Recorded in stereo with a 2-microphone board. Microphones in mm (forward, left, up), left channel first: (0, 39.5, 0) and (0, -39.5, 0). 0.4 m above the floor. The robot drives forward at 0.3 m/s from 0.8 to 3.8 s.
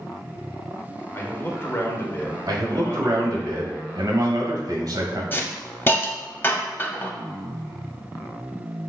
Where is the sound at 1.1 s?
30° left (ahead or behind), 1.0 m.